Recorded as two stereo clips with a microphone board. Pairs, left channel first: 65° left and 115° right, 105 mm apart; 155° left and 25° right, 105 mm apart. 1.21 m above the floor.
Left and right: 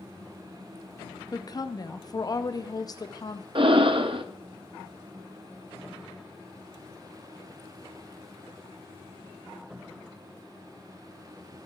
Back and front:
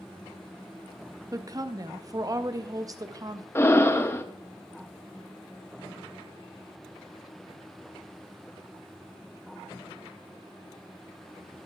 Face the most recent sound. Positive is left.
turn(degrees=-140)